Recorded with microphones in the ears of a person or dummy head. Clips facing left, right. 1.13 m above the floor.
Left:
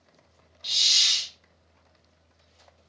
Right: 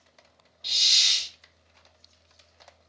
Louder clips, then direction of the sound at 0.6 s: Even; 5° left (ahead or behind).